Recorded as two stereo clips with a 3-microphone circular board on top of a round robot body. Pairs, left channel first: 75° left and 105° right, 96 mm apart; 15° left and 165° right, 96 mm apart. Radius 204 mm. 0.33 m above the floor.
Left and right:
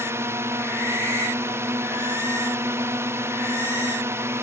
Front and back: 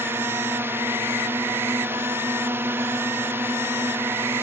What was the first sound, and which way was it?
A drone, 130° right.